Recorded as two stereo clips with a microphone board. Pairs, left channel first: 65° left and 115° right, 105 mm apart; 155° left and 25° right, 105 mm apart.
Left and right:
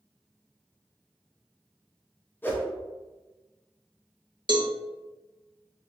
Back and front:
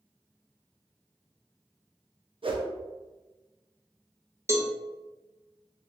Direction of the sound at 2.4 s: Straight ahead.